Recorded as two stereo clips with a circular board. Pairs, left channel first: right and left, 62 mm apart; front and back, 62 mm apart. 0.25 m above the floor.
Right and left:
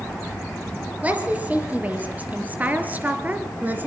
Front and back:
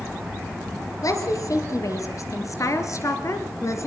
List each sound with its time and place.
1.0 s a woman speaking: 25° left, 5 m; by 3.9 s 30° left, 3.5 m